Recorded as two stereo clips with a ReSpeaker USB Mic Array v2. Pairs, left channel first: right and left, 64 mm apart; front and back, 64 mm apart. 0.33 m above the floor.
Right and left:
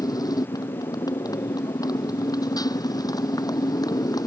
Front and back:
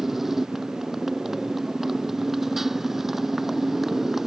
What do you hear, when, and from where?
0.0 s a motorcycle: 95° right